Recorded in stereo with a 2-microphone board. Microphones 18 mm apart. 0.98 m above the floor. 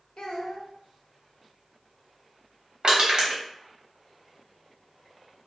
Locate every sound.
0.2 s a child speaking: 70° left (ahead or behind), 0.5 m
2.8 s crushing: 60° right (ahead or behind), 0.9 m